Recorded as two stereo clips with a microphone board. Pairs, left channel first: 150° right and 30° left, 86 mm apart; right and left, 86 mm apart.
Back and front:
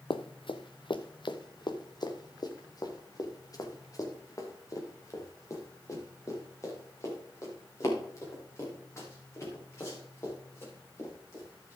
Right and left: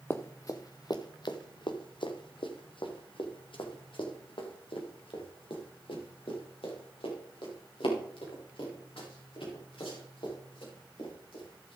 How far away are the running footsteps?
About 0.9 m.